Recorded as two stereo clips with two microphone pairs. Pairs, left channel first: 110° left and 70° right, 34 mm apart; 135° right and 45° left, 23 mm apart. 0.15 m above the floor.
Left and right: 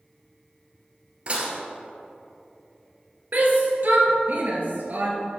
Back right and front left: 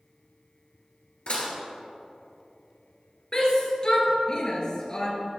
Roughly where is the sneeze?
No sneeze in this recording.